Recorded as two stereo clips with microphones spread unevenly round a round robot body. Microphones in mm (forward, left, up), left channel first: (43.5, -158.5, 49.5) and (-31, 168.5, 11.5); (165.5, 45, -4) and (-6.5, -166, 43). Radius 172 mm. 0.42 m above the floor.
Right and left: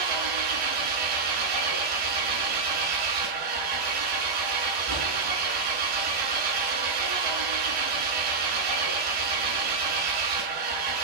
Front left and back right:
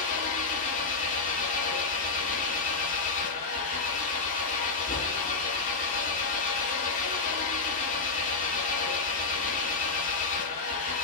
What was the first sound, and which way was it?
An engine running, 120° left.